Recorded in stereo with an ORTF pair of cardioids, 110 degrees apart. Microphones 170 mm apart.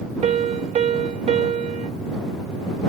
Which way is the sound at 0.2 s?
45° right.